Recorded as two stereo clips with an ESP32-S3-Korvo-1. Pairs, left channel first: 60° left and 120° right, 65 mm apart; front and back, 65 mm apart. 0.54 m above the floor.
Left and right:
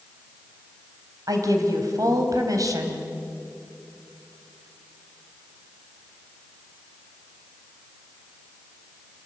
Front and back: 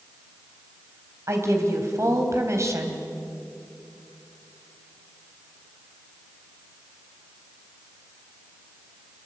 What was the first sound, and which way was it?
A woman speaking, 140° right.